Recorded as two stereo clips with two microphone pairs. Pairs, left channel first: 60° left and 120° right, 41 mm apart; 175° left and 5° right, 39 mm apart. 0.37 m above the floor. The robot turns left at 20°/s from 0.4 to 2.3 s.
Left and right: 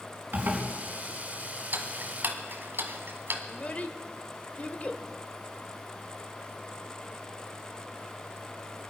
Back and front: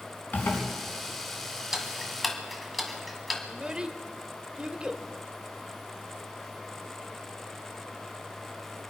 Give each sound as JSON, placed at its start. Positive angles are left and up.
{"t": 0.3, "sound": "a zipper", "azimuth_deg": -155, "distance_m": 3.5}
{"t": 1.7, "sound": "ticking", "azimuth_deg": -85, "distance_m": 1.6}
{"t": 3.5, "sound": "a child speaking", "azimuth_deg": 40, "distance_m": 1.0}